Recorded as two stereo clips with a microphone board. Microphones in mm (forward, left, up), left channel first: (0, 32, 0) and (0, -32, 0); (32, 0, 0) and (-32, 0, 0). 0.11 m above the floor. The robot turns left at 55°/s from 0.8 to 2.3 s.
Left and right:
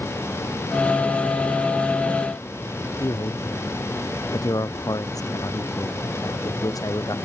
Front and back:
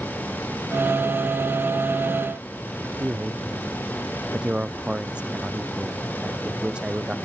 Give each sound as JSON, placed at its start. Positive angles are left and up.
{"t": 3.0, "sound": "a man speaking", "azimuth_deg": 105}